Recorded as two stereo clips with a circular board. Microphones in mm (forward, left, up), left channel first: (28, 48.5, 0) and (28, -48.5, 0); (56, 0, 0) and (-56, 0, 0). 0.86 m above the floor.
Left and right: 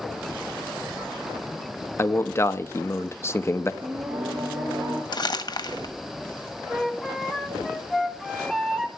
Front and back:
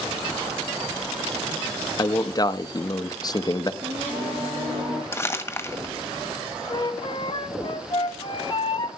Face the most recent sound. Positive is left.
turn(degrees=0)